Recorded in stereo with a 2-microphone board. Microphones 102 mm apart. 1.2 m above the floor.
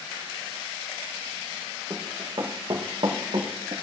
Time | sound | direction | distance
1.9 | running footsteps | 35° right (ahead or behind) | 3 m